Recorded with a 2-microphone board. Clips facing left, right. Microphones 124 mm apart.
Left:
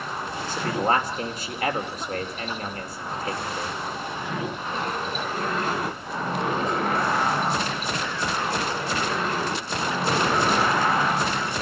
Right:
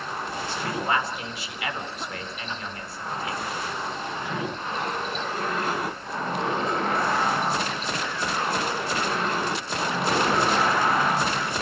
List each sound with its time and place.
0.5 s a man speaking: 45° left (ahead or behind), 3 m